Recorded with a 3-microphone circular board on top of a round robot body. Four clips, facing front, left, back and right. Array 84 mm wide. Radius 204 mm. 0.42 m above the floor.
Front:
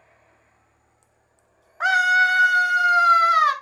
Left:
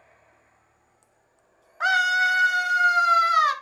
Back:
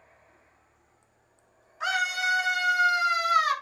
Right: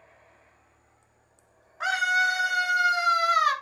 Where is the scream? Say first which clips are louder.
Left 3 dB, front 10 dB; 15° left, 4.5 m; by 3.5 s 5° left, 6.5 m.